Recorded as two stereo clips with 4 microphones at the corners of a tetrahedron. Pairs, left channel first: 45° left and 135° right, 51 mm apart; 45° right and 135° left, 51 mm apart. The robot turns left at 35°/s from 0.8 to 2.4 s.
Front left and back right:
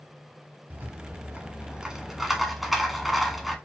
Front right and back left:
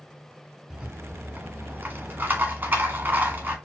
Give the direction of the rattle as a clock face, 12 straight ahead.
6 o'clock.